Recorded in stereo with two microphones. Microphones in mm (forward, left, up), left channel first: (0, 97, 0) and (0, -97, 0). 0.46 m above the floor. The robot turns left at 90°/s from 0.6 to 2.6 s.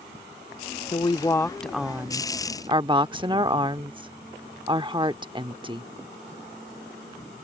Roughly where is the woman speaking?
Left.